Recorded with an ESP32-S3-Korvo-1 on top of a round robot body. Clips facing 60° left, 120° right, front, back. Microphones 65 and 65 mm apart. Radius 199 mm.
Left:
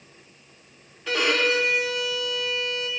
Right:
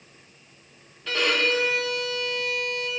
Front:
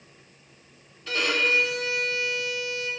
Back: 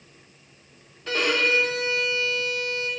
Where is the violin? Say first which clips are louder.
Left 1 dB, back 2 dB; 140° left, 1.2 m.